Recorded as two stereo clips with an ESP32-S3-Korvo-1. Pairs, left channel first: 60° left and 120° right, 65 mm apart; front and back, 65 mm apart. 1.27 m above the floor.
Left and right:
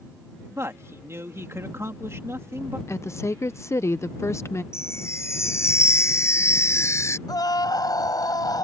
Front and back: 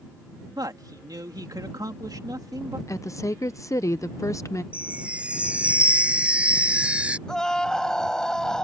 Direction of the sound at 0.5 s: 170° right.